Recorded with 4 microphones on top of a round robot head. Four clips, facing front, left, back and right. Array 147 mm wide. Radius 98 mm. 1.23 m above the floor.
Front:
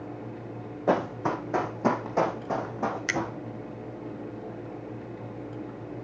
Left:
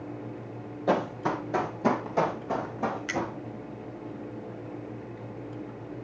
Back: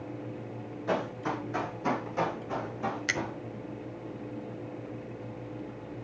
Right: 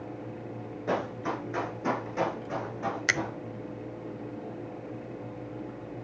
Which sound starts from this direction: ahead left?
Running footsteps, at 0.9 s.